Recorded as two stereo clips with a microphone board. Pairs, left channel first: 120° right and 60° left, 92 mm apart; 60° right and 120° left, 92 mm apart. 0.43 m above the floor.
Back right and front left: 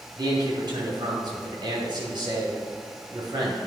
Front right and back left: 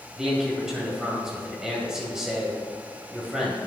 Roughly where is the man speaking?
Ahead left.